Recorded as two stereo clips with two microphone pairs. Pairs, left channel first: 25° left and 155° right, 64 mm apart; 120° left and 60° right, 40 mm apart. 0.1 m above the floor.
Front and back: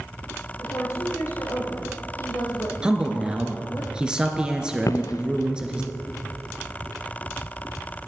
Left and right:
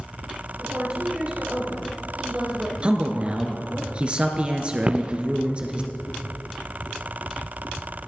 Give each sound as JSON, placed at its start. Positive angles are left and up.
{"t": 0.6, "sound": "a woman speaking", "azimuth_deg": 0, "distance_m": 4.5}
{"t": 2.8, "sound": "a man speaking", "azimuth_deg": -95, "distance_m": 1.3}
{"t": 4.8, "sound": "footsteps", "azimuth_deg": 0, "distance_m": 0.5}